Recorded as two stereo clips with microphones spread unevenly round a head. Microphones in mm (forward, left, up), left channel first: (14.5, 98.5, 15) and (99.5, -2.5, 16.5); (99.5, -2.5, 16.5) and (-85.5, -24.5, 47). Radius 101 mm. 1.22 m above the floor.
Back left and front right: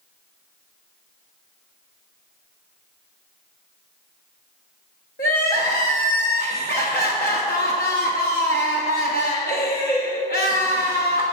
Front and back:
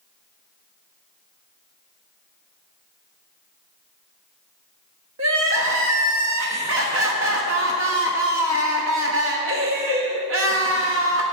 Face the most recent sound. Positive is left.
turn(degrees=165)